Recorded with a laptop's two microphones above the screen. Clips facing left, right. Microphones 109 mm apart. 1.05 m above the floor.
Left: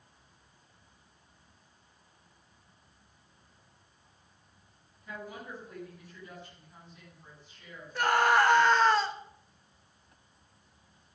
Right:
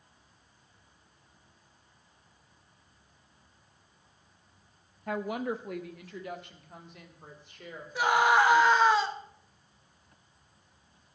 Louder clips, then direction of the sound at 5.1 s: Right 11 dB; 65° right (ahead or behind).